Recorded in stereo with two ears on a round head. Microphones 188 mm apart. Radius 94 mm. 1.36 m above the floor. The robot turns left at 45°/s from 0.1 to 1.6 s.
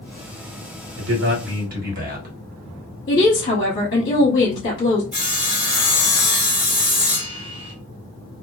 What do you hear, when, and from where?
1.0 s a man speaking: 75° right (ahead or behind), 1.3 m; by 2.4 s 45° right (ahead or behind), 1.3 m
3.1 s a woman speaking: 45° left (ahead or behind), 0.9 m
5.1 s sawing: 5° right (ahead or behind), 1.3 m